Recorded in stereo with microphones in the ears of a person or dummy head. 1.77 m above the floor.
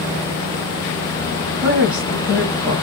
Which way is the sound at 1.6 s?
5° right (ahead or behind).